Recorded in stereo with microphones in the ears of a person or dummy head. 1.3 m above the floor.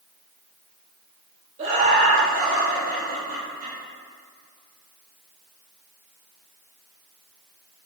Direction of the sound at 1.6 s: 40° right (ahead or behind).